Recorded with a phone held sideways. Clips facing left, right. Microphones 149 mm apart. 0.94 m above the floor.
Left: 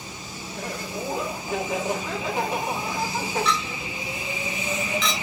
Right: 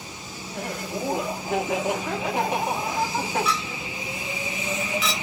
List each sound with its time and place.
0.5 s laughter: 65° right (ahead or behind), 1.4 m
3.5 s a clink: 5° right (ahead or behind), 0.9 m